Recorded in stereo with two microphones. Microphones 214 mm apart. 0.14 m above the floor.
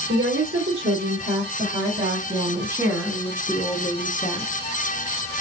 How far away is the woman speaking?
About 3.5 m.